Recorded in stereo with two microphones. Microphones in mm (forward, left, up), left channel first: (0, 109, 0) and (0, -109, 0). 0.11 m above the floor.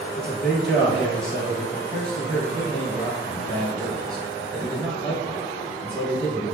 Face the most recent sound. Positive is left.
turn(degrees=5)  # may be behind; listen again after turning